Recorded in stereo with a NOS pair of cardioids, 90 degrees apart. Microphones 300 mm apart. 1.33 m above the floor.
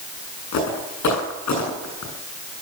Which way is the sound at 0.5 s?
70° left.